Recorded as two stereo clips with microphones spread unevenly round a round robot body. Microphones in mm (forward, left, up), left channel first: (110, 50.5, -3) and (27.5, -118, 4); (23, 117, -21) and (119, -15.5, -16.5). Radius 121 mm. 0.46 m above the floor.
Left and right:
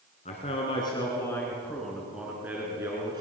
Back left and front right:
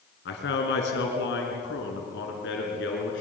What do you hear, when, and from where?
0.2 s a man speaking: 130° left, 4.5 m; by 3.2 s 170° left, 5 m